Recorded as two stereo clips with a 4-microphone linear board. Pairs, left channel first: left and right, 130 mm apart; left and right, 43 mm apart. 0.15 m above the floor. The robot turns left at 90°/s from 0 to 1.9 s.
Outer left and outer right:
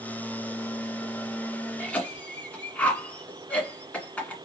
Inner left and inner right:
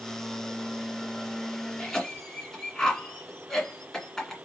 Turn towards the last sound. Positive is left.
turn(degrees=10)  # may be behind; listen again after turning